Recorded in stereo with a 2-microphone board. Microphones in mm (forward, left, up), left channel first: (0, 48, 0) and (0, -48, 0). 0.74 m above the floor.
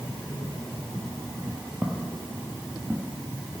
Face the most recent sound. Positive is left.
turn(degrees=-5)  # may be behind; listen again after turning